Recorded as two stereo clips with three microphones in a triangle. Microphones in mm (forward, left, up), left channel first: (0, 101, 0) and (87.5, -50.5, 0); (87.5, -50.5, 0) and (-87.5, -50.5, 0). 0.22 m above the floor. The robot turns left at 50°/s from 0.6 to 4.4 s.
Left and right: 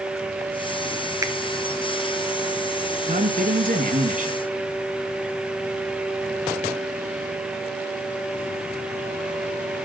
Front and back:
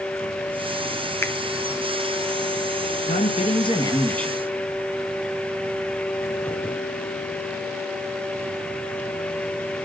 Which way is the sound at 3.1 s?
25° right.